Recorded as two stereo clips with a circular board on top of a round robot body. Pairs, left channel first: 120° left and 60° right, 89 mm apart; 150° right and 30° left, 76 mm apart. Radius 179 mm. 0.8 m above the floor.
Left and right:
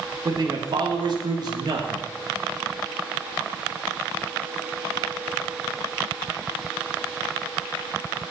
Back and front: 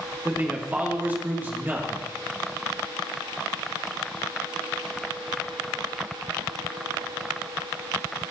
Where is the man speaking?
35° right, 1.9 m.